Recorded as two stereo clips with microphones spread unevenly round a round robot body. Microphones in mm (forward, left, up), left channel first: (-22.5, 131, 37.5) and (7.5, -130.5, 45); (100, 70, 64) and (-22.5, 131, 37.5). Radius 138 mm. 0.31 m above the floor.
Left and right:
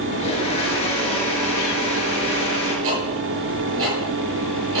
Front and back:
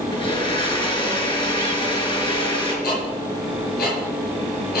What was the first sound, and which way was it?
A blender, 30° left.